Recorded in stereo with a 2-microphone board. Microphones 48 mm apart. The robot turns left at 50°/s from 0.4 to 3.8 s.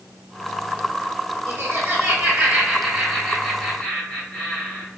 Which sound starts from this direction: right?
Laughter, at 1.5 s.